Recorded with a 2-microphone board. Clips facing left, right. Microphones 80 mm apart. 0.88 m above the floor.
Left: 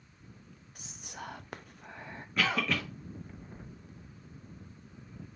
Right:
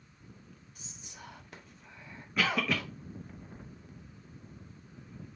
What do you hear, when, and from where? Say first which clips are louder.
0.8 s whispering: left 8 dB; 65° left (ahead or behind), 0.5 m
2.4 s a cough: even; 5° right (ahead or behind), 0.7 m